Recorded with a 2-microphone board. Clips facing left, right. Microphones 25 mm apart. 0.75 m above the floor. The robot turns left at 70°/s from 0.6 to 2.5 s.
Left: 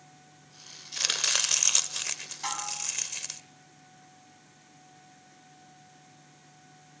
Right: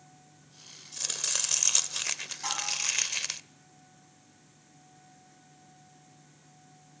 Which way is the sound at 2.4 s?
10° left (ahead or behind).